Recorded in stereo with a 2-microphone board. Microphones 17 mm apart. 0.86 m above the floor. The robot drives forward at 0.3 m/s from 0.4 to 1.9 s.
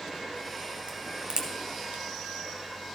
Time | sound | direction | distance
0.9 | a crack | 55° right (ahead or behind) | 1.5 m